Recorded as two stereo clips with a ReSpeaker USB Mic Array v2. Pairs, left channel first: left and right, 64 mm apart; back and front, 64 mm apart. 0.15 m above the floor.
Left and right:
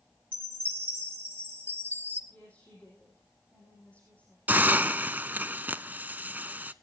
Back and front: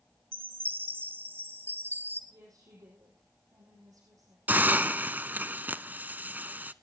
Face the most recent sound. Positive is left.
turn(degrees=-45)